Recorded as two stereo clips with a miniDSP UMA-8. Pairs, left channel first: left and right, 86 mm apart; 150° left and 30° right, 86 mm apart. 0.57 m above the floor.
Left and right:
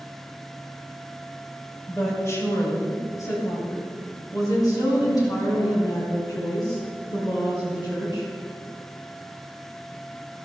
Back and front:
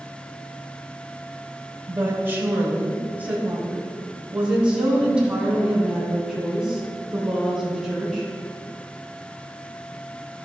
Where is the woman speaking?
30° left, 2.5 m; by 8.2 s 55° left, 6 m.